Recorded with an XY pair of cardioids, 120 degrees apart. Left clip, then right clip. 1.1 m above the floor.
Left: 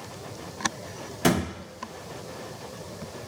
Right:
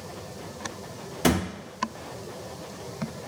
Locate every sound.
1.2 s a thud: 5° left, 1.2 m